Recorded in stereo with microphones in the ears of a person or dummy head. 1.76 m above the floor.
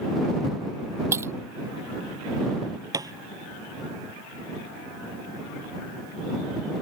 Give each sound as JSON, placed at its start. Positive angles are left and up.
{"t": 1.1, "sound": "breaking glass", "side_deg": -10}
{"t": 2.9, "sound": "a thud", "side_deg": -20}